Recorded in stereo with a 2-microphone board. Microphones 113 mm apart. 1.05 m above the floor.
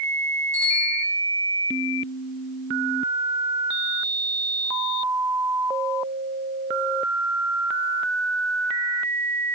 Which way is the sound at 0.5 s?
25° right (ahead or behind).